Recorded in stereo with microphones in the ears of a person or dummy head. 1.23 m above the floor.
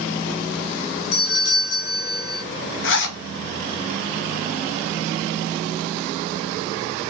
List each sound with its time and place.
1.1 s a doorbell: 60° left (ahead or behind), 1.9 m
2.8 s a zipper: 65° left (ahead or behind), 0.6 m